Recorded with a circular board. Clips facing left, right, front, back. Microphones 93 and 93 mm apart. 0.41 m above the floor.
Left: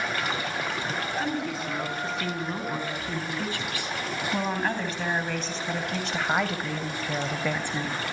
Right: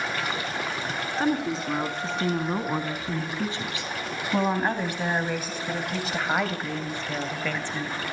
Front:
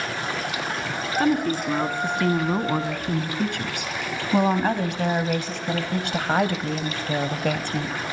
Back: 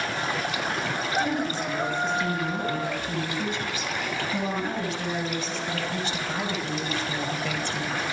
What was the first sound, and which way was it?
A woman speaking, 35° right.